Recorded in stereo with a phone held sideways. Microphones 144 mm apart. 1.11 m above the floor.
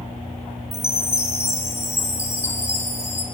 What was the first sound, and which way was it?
A chime, 20° left (ahead or behind).